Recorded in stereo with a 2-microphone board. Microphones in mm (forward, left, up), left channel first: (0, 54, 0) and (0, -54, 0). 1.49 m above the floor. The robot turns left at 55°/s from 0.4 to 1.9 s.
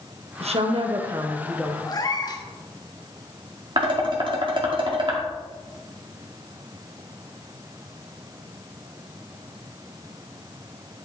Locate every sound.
0.4 s a woman speaking: 105° right, 0.9 m; by 1.8 s straight behind, 0.9 m
1.9 s a cat meowing: 35° left (ahead or behind), 1.0 m
3.8 s dishes clattering: 50° right (ahead or behind), 1.9 m